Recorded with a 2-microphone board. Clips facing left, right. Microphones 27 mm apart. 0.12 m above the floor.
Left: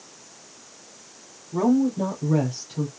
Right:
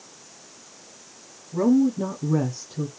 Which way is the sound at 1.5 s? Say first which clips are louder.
Right 1 dB; 55° left (ahead or behind).